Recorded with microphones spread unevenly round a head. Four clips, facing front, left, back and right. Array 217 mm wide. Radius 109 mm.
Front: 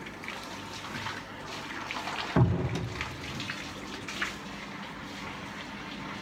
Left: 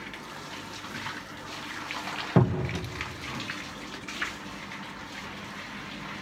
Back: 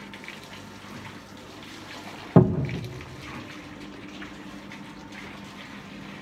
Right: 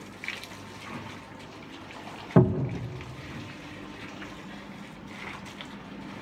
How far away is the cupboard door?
About 1.9 m.